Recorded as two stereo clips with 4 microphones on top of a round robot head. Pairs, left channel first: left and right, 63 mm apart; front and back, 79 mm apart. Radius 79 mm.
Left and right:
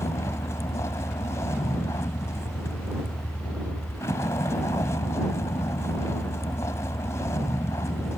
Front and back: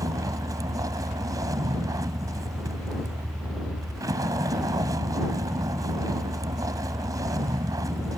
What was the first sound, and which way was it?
A vehicle, 140° left.